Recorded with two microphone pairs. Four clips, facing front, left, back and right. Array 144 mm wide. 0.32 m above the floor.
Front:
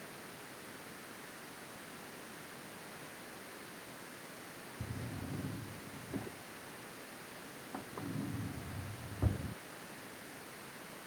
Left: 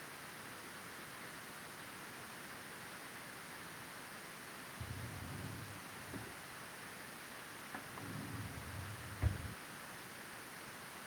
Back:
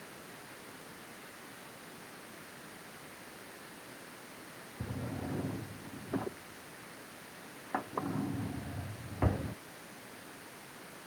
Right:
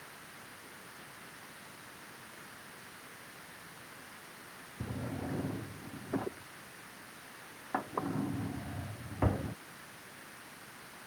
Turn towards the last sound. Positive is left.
turn(degrees=-125)